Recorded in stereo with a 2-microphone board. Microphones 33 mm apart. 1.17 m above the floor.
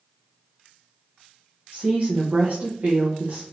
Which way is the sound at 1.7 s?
60° right (ahead or behind).